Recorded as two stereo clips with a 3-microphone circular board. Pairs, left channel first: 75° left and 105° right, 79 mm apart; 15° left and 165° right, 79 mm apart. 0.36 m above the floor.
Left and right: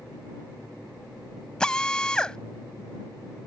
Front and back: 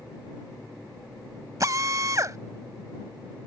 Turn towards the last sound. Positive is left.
turn(degrees=155)